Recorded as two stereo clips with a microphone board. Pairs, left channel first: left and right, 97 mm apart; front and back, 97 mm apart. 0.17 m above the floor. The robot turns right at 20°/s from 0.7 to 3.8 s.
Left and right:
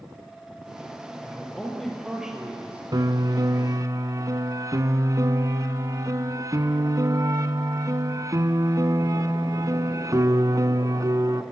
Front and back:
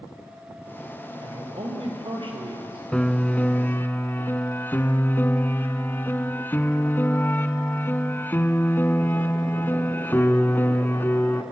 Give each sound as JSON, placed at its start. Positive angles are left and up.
{"t": 1.2, "sound": "a man speaking", "azimuth_deg": 165, "distance_m": 4.5}
{"t": 2.9, "sound": "a piano", "azimuth_deg": -75, "distance_m": 0.9}